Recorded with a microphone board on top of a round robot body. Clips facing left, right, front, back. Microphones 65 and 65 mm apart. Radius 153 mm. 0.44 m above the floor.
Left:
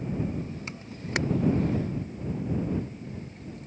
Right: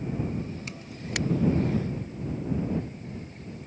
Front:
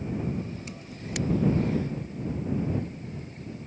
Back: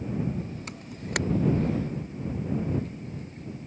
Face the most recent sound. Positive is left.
turn(degrees=150)